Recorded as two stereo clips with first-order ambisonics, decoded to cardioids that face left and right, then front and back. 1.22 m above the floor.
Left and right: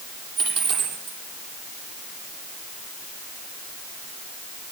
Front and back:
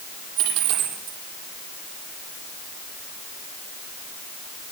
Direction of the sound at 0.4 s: 135° right.